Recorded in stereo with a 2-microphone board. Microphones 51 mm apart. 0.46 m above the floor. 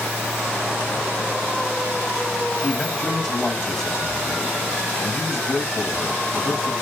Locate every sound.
2.6 s a man speaking: 5° left (ahead or behind), 3 m